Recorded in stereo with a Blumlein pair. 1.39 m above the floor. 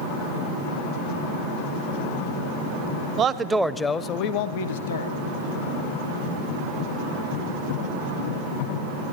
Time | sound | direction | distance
3.2 | a man speaking | 30° right | 0.6 m